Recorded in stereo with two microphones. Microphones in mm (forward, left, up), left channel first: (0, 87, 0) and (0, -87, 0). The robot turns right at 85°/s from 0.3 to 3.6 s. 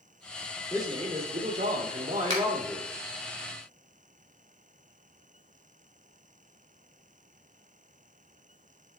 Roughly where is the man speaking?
Behind.